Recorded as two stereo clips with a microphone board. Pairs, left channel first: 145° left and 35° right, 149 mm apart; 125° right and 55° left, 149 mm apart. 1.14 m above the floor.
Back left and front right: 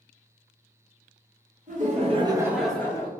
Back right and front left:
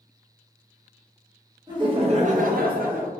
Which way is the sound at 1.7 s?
5° right.